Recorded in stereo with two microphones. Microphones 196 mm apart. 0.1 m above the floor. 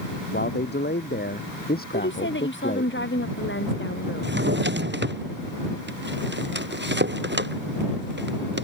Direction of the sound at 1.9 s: 75° left (ahead or behind).